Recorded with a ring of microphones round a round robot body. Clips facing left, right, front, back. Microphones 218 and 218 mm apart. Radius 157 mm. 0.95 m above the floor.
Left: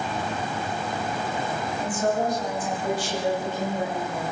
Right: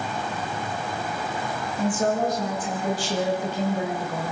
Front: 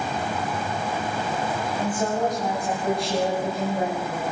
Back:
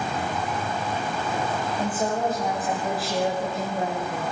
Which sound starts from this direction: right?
A woman speaking, at 1.8 s.